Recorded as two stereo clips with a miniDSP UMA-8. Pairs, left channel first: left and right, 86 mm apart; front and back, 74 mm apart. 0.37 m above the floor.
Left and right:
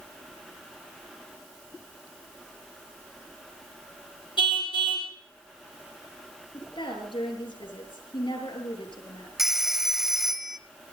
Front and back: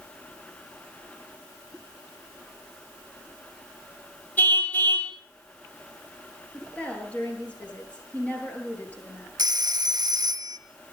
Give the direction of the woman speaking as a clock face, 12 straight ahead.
10 o'clock.